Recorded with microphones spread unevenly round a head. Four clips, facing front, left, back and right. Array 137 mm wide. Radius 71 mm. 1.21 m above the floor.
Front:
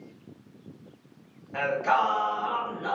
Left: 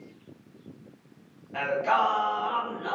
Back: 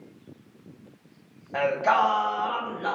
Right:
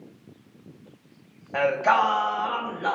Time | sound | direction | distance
1.5 | singing | 125° right | 1.0 m